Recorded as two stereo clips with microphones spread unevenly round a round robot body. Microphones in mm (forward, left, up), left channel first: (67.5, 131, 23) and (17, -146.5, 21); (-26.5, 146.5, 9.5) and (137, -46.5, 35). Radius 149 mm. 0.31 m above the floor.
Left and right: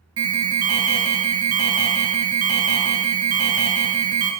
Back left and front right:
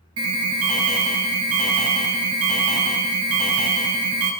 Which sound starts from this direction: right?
An alarm, at 0.2 s.